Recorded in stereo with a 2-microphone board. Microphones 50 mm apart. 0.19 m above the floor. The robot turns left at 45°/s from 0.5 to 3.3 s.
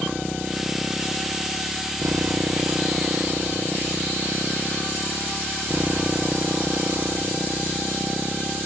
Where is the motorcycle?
15° right; by 8.7 s 140° right.